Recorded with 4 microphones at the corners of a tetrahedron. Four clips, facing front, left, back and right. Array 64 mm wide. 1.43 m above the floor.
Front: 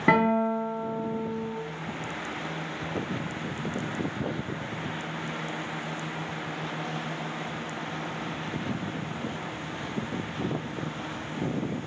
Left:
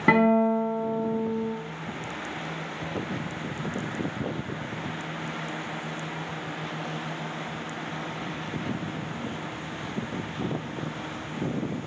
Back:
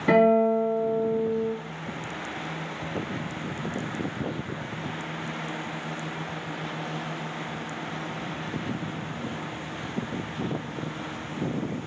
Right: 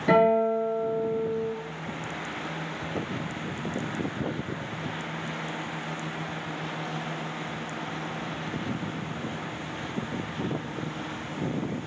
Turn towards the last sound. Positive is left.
turn(degrees=50)